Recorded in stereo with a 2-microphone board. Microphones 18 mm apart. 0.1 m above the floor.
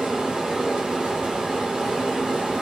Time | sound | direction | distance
0.0 | running water | 70° right (ahead or behind) | 1.9 m